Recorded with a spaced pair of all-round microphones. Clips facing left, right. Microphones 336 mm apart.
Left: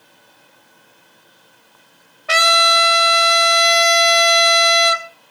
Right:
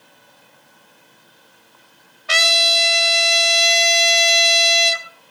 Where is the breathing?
No breathing in this recording.